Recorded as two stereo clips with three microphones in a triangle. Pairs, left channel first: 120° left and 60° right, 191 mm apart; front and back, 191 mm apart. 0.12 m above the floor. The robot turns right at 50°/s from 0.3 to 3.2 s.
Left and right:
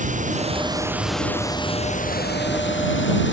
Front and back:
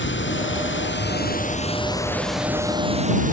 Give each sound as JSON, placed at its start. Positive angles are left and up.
{"t": 0.0, "sound": "running water", "azimuth_deg": -10}